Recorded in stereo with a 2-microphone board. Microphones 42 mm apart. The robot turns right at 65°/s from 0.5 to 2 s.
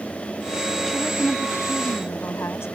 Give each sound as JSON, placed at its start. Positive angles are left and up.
{"t": 0.9, "sound": "a woman speaking", "azimuth_deg": 10}